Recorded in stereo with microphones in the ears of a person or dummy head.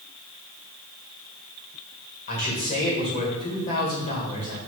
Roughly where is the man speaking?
Left.